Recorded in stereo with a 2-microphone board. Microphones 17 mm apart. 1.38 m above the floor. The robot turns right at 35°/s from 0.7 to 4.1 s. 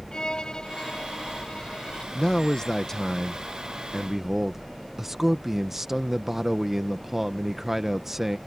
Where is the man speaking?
130° left; by 8.4 s 160° right.